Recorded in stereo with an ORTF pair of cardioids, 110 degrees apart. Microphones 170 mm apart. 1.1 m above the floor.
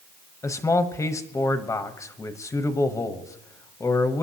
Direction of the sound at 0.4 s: 15° left.